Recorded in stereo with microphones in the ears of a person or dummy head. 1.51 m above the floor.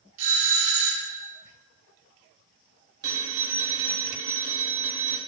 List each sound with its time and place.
0.2 s a doorbell: 40° right (ahead or behind), 2 m
3.0 s a phone ringing: 25° right (ahead or behind), 1.4 m